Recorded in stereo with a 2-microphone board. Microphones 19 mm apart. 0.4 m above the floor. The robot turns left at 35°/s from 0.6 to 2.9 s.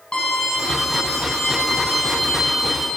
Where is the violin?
55° left, 4.5 m; by 2.9 s 25° right, 4.5 m.